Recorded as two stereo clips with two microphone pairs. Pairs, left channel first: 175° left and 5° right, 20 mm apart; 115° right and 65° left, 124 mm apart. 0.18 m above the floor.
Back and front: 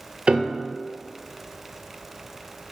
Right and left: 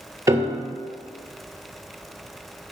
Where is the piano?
Straight ahead, 0.9 m.